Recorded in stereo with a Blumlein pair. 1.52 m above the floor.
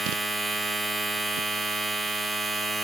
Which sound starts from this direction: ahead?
A machine running, at 0.0 s.